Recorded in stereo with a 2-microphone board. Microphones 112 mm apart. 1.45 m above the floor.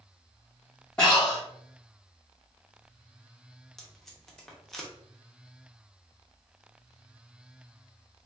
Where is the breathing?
5° left (ahead or behind), 1.5 m.